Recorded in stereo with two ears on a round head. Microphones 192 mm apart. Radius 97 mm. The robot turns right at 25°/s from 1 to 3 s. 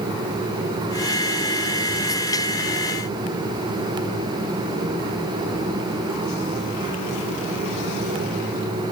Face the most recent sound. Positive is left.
No sound to turn to.